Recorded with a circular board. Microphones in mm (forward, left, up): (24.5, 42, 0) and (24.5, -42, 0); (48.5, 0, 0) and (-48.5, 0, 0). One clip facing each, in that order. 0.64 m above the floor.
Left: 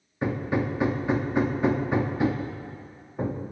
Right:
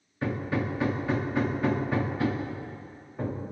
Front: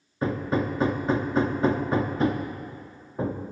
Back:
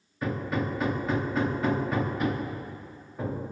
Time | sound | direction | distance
0.2 | hammering | 30° left | 0.7 m